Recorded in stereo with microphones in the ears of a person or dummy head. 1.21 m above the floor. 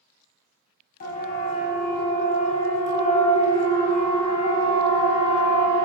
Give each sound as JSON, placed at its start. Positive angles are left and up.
{"t": 1.0, "sound": "a siren", "side_deg": 50, "distance_m": 7.5}